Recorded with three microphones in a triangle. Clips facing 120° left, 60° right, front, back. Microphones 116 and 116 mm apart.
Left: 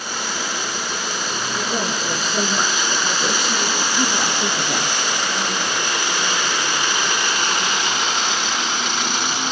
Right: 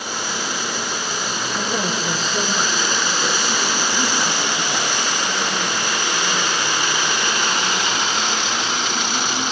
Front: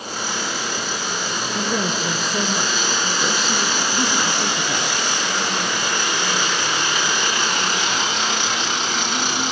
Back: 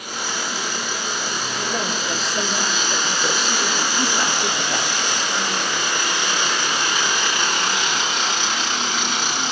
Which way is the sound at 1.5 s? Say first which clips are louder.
Right 1 dB, front 4 dB; 30° left.